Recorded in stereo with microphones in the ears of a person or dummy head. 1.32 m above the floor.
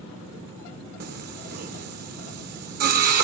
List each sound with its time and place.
1.0 s singing: 55° right (ahead or behind), 0.8 m